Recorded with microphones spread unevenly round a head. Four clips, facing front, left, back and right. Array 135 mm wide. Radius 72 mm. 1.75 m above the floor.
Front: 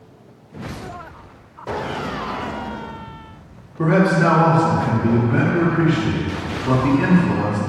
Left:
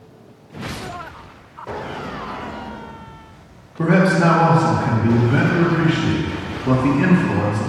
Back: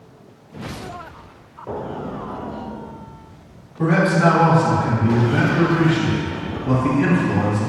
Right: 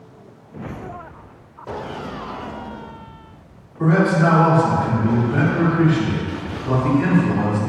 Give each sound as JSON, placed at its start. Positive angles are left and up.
{"t": 3.8, "sound": "a man speaking", "azimuth_deg": 70, "distance_m": 3.0}